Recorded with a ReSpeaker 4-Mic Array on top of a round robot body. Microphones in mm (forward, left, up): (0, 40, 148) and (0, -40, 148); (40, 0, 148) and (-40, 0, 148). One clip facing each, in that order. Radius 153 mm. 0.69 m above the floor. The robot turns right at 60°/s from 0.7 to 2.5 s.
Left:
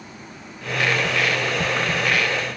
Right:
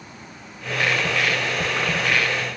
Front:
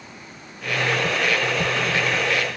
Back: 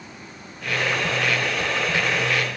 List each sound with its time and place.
Only background noise.